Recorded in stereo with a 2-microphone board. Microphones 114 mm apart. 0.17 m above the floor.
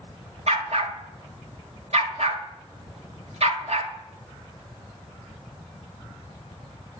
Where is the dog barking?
65° right (ahead or behind), 1.2 m.